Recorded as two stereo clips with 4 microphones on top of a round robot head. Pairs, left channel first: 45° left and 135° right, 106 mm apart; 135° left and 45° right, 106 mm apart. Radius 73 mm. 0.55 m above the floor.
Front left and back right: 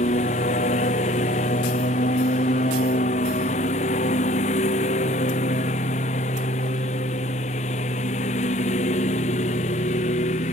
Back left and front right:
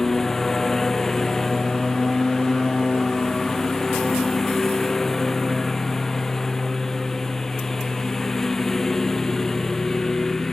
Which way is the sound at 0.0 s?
50° left.